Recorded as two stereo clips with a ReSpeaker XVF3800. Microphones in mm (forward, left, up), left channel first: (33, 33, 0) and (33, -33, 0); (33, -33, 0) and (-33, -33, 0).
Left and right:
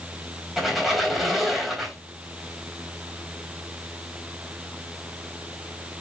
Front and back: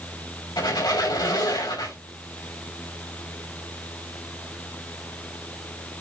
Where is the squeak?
Straight ahead, 4 m.